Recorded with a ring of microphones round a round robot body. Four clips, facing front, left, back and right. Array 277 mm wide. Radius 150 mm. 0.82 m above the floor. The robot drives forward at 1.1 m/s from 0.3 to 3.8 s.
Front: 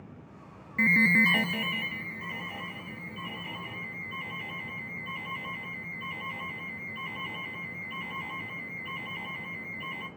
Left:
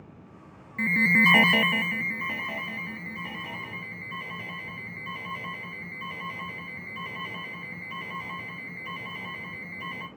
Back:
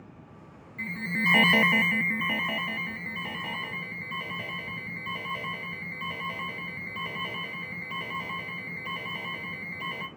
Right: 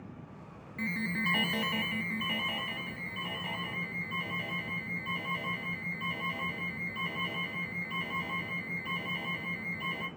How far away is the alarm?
About 0.6 m.